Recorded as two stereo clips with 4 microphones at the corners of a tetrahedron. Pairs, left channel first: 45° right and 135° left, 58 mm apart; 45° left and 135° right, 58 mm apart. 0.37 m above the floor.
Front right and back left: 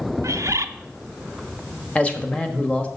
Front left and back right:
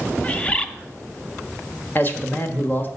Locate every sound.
0.2 s a bird: 115° left, 0.6 m
1.9 s a man speaking: 10° left, 1.2 m